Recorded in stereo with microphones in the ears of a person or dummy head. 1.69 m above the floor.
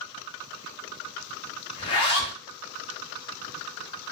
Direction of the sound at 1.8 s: 25° left (ahead or behind).